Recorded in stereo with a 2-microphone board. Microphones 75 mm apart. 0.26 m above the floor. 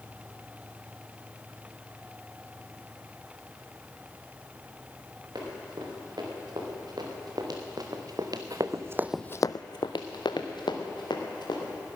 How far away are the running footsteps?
About 6 m.